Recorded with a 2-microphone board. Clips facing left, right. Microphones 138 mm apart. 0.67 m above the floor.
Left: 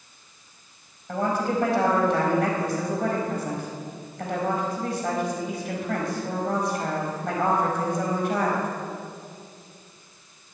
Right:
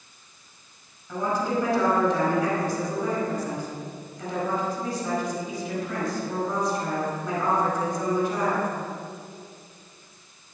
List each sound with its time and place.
1.1 s a woman speaking: 60° left (ahead or behind), 4.5 m